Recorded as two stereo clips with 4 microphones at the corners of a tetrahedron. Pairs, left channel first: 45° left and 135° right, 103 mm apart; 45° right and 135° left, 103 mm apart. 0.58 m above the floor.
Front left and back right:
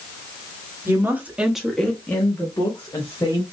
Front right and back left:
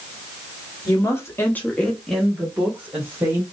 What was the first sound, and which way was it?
A woman speaking, 85° right.